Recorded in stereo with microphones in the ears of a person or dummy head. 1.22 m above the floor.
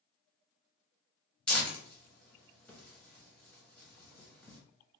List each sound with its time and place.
1.5 s tearing paper: 5° left (ahead or behind), 0.9 m